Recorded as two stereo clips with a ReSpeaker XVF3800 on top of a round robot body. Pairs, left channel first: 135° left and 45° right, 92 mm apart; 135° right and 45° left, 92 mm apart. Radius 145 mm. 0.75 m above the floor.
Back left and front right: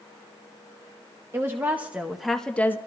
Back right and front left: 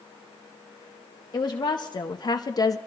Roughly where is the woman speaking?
Right.